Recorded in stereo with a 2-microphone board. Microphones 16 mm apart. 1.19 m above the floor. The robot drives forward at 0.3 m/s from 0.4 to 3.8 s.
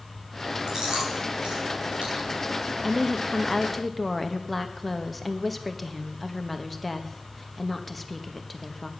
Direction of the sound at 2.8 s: 5° left (ahead or behind).